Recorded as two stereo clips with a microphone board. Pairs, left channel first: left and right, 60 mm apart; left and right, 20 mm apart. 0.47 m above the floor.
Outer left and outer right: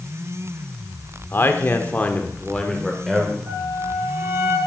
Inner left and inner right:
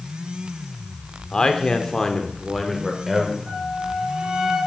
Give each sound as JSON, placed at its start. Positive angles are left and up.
{"t": 1.3, "sound": "a man speaking", "side_deg": 40, "distance_m": 1.3}
{"t": 3.5, "sound": "a flute", "side_deg": -35, "distance_m": 6.0}